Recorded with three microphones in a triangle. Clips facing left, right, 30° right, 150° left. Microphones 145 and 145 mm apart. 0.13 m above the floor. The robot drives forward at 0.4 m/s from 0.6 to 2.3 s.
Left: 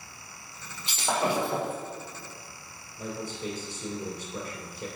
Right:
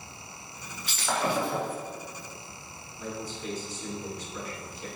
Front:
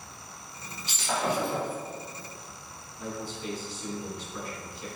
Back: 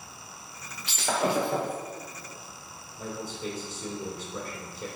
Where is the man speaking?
120° left, 3.5 m.